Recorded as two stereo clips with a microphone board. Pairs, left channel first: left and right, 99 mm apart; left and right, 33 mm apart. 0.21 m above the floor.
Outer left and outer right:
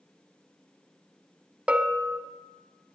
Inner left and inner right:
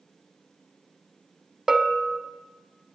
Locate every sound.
1.7 s a bell: 10° right (ahead or behind), 0.8 m